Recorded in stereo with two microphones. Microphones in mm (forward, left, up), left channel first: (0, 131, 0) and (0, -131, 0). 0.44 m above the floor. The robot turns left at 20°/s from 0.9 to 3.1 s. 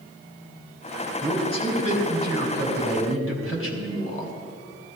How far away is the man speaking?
About 2.5 m.